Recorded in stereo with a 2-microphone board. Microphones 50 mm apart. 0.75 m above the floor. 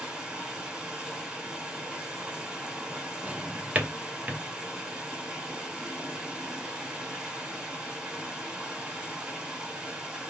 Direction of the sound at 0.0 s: 20° right (ahead or behind).